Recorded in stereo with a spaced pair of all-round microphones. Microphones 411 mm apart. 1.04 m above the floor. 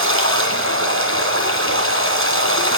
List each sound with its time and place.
0.0 s running water: 30° right (ahead or behind), 4 m